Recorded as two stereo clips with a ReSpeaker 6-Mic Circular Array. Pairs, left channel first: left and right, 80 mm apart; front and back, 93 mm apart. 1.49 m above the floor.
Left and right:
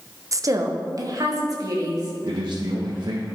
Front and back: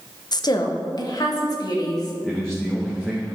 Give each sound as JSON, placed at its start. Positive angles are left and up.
{"t": 0.3, "sound": "a woman speaking", "azimuth_deg": -40, "distance_m": 0.8}
{"t": 2.2, "sound": "a man speaking", "azimuth_deg": -85, "distance_m": 1.4}